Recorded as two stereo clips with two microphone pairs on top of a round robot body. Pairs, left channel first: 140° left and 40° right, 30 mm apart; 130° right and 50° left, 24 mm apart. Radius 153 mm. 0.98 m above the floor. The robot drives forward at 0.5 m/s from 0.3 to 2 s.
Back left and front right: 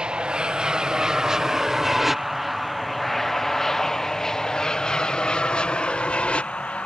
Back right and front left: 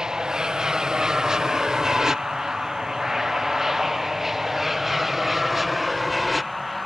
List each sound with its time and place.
0.0 s an aircraft: 10° right; by 6.9 s 155° left